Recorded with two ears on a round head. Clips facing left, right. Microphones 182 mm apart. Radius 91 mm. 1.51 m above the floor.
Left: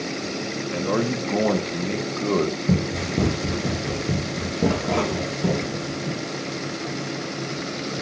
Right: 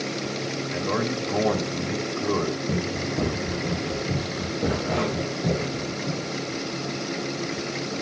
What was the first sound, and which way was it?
A man speaking, 50° left (ahead or behind).